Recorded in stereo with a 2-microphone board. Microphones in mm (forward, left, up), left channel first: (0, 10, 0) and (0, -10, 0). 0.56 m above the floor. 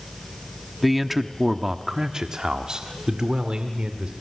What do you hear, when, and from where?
0.8 s a man speaking: centre (ahead or behind), 1.1 m; by 4.1 s 50° right (ahead or behind), 2 m